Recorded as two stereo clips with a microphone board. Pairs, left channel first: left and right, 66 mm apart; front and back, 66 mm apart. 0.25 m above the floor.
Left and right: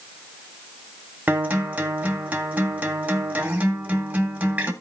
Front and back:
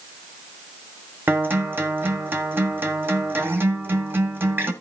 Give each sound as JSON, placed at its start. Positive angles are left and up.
{"t": 1.3, "sound": "a guitar", "azimuth_deg": -145, "distance_m": 2.0}